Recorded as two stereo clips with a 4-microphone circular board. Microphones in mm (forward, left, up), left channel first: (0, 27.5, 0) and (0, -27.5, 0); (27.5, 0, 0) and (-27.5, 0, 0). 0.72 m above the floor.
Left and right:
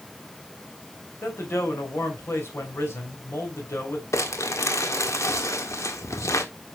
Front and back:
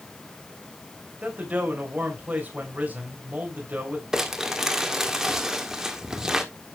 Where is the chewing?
No chewing in this recording.